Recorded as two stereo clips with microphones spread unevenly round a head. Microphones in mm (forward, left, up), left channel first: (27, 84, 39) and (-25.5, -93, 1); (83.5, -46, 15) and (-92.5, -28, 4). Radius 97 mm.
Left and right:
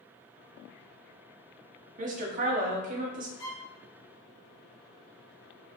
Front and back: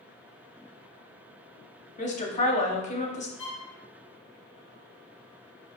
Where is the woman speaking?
55° right, 0.9 m.